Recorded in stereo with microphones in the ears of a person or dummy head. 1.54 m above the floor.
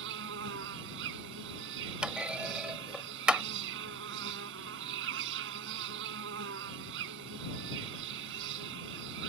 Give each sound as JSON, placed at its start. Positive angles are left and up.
{"t": 0.0, "sound": "an insect", "side_deg": -70}
{"t": 2.0, "sound": "a clunk", "side_deg": -5}